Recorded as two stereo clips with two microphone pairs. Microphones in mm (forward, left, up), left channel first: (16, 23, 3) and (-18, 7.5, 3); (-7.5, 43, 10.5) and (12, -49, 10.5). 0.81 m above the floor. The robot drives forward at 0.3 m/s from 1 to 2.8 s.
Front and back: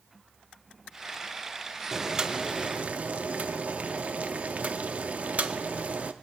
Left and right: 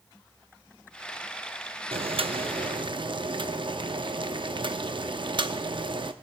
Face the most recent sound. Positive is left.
turn(degrees=-105)